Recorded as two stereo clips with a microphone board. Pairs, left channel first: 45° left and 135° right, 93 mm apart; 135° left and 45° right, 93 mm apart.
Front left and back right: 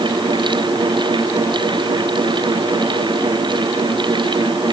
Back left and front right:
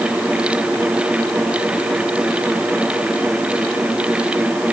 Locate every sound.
Only background noise.